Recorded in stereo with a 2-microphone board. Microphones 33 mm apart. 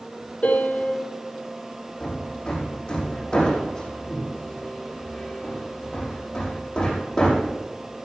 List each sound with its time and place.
0.4 s a piano: 55° left (ahead or behind), 6 m
2.0 s hammering: 25° left (ahead or behind), 5.5 m